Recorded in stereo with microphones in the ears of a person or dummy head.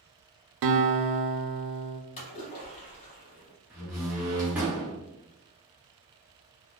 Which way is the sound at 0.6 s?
60° right (ahead or behind).